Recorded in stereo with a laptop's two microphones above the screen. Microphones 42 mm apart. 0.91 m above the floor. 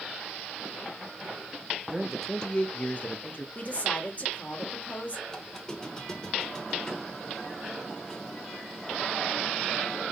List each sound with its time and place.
1.9 s a man speaking: 15° right (ahead or behind), 0.6 m; by 3.5 s 45° left (ahead or behind), 1.2 m
3.5 s a woman speaking: 40° left (ahead or behind), 1.7 m
5.3 s a squeak: 15° left (ahead or behind), 1.3 m